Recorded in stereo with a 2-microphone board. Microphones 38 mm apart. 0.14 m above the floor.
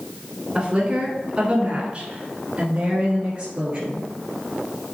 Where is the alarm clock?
No alarm clock in this recording.